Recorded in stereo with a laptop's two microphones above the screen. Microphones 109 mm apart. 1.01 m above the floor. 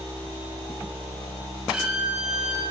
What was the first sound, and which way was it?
A violin, 5° right (ahead or behind).